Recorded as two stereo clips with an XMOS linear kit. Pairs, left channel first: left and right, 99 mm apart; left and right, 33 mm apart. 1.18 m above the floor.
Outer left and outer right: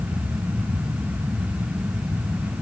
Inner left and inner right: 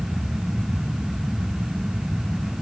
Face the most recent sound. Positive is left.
No sound to turn to.